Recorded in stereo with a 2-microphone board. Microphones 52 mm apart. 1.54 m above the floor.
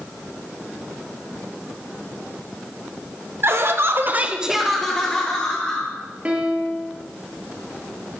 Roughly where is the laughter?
Right.